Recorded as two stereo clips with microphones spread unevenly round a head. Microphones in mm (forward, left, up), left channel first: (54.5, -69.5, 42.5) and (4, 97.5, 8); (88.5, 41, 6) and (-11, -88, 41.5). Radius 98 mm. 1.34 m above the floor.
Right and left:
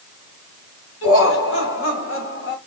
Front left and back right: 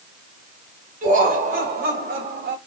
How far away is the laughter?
About 2 m.